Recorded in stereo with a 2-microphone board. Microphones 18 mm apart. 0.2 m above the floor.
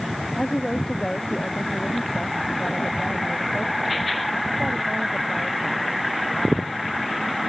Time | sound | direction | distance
0.4 | a woman speaking | 25° left (ahead or behind) | ?